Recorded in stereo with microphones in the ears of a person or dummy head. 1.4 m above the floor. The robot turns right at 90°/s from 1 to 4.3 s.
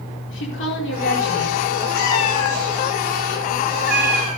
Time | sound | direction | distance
0.3 | a woman speaking | 65° left | 4.5 m
1.9 | a cat meowing | 110° left | 8 m